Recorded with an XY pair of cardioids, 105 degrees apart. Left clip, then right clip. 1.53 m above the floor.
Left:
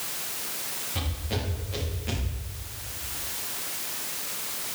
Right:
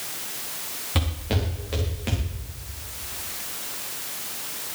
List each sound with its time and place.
0.9 s footsteps: 65° right, 7 m